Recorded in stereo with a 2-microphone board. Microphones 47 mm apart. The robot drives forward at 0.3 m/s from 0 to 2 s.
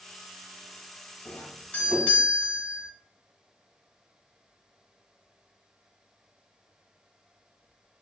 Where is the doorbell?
30° left (ahead or behind), 1.7 m.